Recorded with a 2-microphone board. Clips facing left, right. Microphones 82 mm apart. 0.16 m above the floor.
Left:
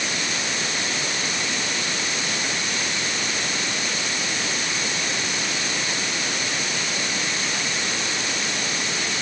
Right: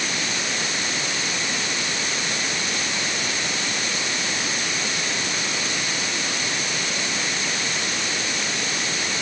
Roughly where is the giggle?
I don't hear a giggle.